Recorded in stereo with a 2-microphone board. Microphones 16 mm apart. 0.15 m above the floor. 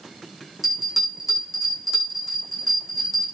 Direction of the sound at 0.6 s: 5° right (ahead or behind).